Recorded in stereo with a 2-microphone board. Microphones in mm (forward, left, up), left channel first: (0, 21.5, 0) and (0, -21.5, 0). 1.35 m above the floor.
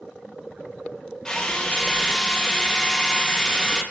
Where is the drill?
20° left (ahead or behind), 1.0 m.